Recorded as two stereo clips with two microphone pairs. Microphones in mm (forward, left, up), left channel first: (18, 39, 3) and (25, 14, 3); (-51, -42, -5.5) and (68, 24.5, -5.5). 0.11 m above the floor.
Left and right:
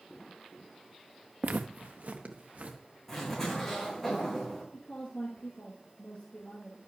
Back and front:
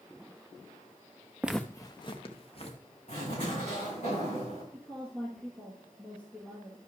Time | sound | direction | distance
1.4 | footsteps | 50° right | 0.5 m
3.1 | a zipper | straight behind | 5.5 m
4.7 | a woman speaking | 130° left | 1.9 m